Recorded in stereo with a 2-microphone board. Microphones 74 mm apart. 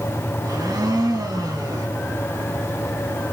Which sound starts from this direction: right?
A blender, at 0.4 s.